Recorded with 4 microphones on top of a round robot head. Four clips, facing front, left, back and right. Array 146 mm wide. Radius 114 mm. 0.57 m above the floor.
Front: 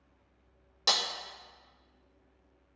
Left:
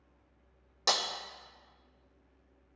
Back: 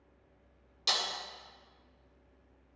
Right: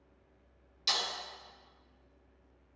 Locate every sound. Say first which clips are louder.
0.9 s breaking glass: left 5 dB, front 3 dB; 60° left, 0.8 m